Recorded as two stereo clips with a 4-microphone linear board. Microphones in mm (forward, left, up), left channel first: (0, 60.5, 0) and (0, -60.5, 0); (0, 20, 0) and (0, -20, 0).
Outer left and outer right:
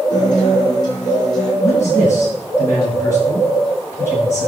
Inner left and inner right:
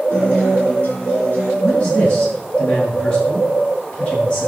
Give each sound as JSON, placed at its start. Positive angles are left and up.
{"t": 0.1, "sound": "a guitar", "side_deg": 35, "distance_m": 8.5}
{"t": 1.6, "sound": "a man speaking", "side_deg": 25, "distance_m": 8.0}